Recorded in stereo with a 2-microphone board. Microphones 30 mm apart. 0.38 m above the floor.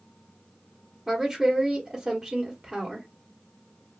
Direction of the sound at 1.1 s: 15° right (ahead or behind).